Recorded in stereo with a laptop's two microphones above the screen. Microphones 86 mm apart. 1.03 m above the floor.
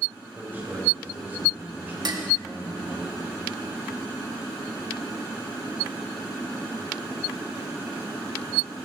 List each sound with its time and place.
0.3 s a man speaking: 20° right (ahead or behind), 4.5 m
2.0 s dishes clattering: 60° right (ahead or behind), 1.2 m